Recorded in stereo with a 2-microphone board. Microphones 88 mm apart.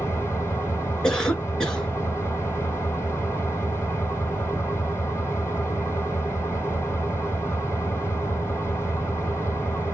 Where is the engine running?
25° left (ahead or behind), 4 m.